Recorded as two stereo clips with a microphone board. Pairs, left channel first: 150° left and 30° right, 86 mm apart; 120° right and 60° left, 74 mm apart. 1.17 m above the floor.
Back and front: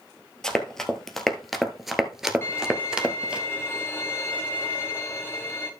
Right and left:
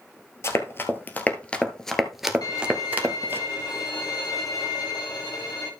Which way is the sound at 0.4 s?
135° right.